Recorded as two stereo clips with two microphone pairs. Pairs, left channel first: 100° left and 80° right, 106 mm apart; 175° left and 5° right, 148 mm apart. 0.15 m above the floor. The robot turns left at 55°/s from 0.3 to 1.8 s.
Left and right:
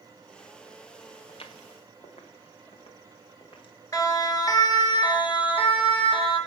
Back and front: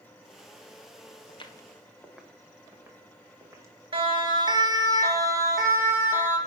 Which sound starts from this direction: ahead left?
A siren, at 3.9 s.